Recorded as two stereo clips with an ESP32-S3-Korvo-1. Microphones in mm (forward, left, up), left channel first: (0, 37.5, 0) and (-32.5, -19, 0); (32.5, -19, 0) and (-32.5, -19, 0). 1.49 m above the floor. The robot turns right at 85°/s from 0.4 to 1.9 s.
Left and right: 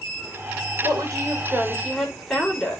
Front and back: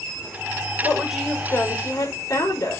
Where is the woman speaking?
115° right, 6.5 m; by 2.8 s 25° right, 6.5 m.